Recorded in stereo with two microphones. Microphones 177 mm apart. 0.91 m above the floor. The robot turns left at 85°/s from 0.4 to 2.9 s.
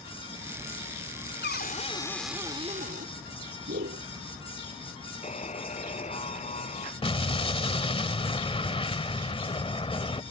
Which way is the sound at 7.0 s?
30° left (ahead or behind).